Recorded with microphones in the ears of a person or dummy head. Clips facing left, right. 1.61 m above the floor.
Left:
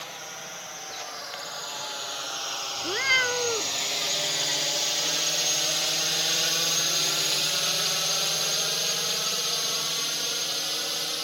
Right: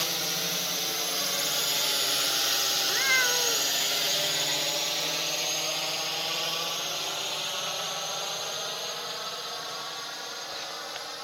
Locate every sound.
0.0 s a drone: 60° right (ahead or behind); by 11.3 s 45° left (ahead or behind)
2.8 s a cat meowing: 50° left (ahead or behind)